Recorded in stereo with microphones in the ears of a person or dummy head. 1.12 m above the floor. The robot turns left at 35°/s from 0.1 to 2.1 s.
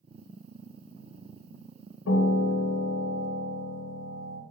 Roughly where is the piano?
Left.